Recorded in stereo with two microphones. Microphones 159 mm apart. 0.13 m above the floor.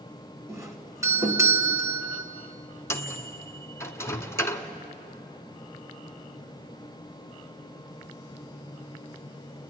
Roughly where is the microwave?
Centre.